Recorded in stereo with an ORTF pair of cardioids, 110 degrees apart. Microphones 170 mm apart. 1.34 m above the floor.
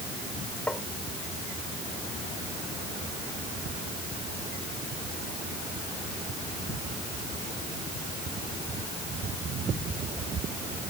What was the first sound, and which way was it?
Tapping, 10° left.